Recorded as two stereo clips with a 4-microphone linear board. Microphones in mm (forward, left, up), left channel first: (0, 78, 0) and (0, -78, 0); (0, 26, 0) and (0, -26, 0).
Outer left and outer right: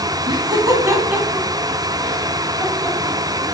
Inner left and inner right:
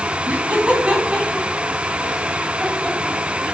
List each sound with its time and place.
0.3 s laughter: 30° right (ahead or behind), 1.3 m; by 3.5 s 20° left (ahead or behind), 2 m